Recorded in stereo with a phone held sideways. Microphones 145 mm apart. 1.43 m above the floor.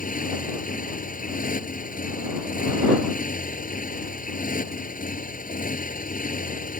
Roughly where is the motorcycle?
Left.